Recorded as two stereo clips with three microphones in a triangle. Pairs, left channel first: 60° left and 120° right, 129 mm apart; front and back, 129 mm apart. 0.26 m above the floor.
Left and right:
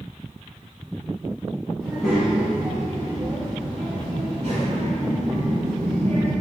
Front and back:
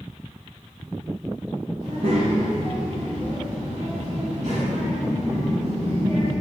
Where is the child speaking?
145° left, 1.1 m; by 6.3 s 140° right, 2.5 m.